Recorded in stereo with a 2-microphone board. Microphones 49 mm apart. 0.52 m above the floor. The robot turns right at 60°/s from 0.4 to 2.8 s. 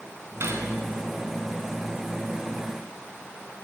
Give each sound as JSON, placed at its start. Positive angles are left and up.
{"t": 0.4, "sound": "cutlery clinking", "side_deg": -60, "distance_m": 3.0}